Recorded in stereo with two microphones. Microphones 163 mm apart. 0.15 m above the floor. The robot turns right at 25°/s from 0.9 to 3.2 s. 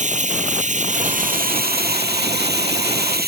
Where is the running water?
130° right; by 3.3 s 75° right.